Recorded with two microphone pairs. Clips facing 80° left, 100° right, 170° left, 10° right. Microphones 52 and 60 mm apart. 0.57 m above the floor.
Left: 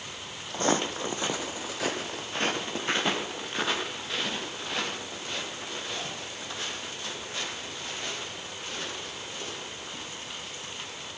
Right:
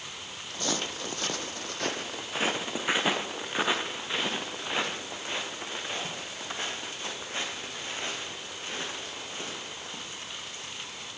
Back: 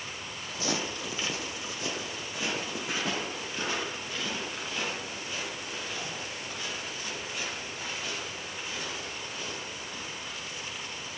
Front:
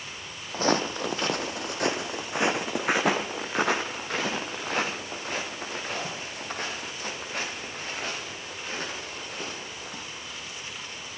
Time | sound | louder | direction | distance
0.5 | footsteps | left 6 dB, front 8 dB | 30° left | 1.1 m